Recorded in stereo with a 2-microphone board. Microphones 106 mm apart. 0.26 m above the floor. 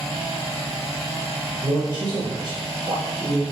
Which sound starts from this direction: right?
A man speaking, at 1.6 s.